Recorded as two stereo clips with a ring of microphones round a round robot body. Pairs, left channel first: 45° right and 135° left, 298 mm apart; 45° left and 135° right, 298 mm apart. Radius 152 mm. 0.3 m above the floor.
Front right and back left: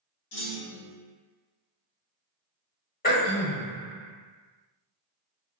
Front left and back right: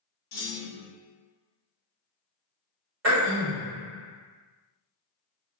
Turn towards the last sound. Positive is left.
turn(degrees=-100)